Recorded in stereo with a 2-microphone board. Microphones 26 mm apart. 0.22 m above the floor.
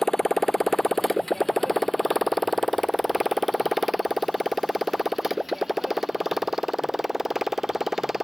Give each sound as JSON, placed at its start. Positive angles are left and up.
{"t": 0.0, "sound": "a motorcycle", "side_deg": 10}